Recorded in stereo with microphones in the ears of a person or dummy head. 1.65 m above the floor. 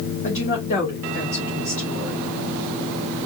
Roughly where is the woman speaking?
Left.